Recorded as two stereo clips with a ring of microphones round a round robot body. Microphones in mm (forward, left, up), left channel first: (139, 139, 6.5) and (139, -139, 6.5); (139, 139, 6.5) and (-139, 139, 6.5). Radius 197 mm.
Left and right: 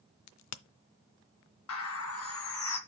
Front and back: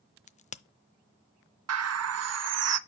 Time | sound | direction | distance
0.3 | a crack | 65° left | 0.5 m
1.7 | a bird | 145° left | 0.7 m